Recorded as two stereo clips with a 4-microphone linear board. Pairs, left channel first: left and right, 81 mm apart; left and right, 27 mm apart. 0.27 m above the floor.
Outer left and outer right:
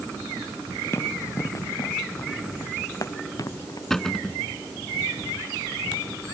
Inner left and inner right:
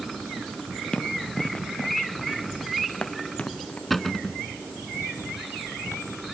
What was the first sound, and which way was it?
Running footsteps, 35° left (ahead or behind).